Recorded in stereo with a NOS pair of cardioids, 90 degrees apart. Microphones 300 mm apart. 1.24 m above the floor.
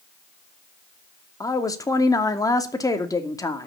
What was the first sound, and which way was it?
A woman speaking, 10° left.